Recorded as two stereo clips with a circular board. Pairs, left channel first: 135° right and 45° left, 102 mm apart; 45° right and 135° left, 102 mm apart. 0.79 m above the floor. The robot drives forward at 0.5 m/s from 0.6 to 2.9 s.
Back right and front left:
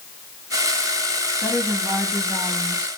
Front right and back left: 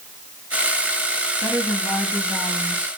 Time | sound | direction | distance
1.4 | a woman speaking | 5° right | 1.5 m